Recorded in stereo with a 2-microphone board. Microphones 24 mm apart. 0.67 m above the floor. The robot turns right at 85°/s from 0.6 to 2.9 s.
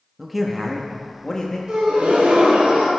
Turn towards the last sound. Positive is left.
turn(degrees=-50)